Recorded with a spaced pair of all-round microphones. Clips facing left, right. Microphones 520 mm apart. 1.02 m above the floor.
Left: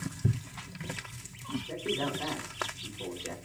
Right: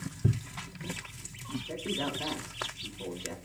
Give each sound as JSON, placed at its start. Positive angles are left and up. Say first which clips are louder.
{"t": 1.6, "sound": "a man speaking", "louder": "left 1 dB", "side_deg": 0, "distance_m": 5.0}